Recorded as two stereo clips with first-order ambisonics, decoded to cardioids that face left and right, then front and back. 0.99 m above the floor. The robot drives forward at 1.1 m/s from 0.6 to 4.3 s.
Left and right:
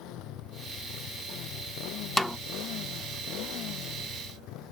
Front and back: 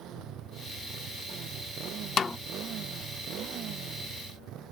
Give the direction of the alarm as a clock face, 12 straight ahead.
No alarm in this recording.